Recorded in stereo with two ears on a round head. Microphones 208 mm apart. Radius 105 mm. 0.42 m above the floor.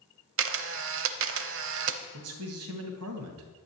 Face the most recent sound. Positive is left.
turn(degrees=-70)  # may be behind; listen again after turning